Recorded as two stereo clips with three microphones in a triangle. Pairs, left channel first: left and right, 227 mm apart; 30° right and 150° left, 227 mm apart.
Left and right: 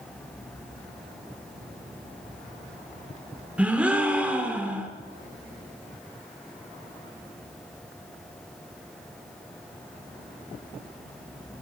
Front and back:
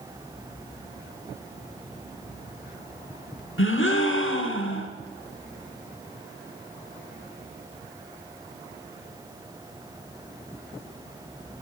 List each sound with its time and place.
3.6 s a gasp: 5° right, 1.1 m